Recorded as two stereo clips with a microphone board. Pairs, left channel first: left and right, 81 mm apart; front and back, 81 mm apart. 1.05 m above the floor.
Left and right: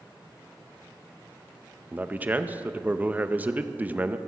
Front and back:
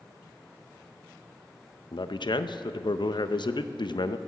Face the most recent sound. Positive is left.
turn(degrees=-20)